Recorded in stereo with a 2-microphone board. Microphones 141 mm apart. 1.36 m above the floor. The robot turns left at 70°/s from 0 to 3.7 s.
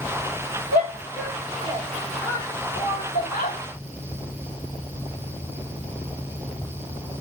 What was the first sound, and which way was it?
A shout, 85° right.